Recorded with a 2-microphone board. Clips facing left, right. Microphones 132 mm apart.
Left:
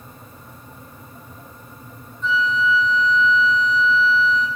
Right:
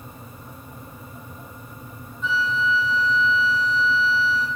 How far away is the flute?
About 1.9 m.